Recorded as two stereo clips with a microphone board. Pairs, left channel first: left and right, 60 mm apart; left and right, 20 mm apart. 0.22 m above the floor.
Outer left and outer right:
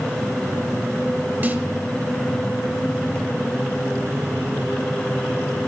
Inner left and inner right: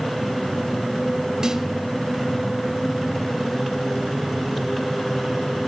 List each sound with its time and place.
1.4 s a snare drum: 35° right (ahead or behind), 1.1 m